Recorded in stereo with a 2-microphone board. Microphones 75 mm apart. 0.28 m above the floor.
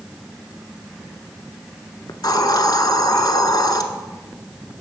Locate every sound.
2.1 s a hiss: 65° left (ahead or behind), 0.7 m